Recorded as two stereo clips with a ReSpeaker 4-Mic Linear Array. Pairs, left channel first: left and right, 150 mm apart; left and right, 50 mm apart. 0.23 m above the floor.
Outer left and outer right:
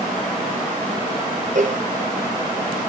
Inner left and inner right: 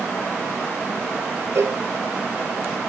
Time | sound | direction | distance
1.6 | a cowbell | 55° right (ahead or behind) | 1.6 m